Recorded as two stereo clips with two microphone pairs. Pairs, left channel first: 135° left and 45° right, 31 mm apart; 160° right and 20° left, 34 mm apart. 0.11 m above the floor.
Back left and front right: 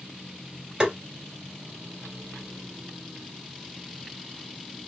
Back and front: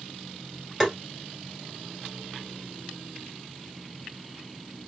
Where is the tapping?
65° right, 1.5 m.